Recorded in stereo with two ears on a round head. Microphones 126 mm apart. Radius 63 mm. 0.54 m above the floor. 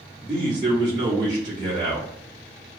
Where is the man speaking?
30° right (ahead or behind), 1.2 m.